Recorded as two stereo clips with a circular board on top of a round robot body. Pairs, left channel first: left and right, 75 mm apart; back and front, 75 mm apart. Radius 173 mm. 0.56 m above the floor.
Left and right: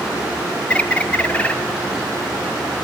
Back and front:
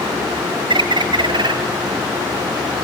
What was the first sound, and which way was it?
A bird, 15° left.